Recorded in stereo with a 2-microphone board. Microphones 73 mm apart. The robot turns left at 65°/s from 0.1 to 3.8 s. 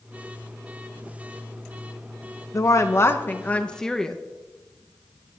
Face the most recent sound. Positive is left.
turn(degrees=10)